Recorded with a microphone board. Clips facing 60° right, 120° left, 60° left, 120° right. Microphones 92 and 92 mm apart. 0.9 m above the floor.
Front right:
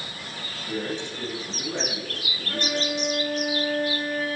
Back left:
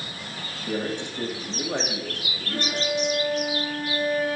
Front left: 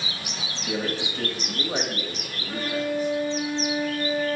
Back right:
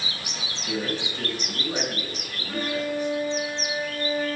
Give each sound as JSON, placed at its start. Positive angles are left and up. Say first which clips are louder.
{"t": 0.7, "sound": "a man speaking", "louder": "back left 2 dB, front left 1 dB", "azimuth_deg": 105, "distance_m": 1.6}
{"t": 2.5, "sound": "a violin", "louder": "back left 1 dB, even", "azimuth_deg": -25, "distance_m": 4.0}